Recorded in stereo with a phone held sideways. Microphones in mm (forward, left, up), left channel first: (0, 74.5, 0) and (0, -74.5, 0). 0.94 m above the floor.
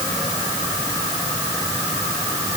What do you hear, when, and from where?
Only background noise.